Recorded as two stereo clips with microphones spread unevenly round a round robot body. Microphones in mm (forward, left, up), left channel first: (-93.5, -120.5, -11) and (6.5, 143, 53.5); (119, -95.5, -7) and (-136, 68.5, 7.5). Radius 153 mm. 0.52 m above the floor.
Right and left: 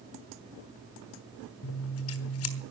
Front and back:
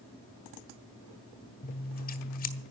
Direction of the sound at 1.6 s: 90° right.